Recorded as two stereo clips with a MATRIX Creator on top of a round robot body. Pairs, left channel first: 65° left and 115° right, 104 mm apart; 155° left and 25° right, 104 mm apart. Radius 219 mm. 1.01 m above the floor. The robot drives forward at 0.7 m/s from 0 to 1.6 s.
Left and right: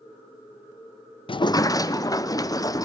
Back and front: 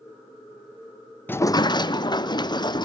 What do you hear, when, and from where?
1.3 s a sliding door: 85° left, 0.6 m; by 2.9 s 120° left, 0.6 m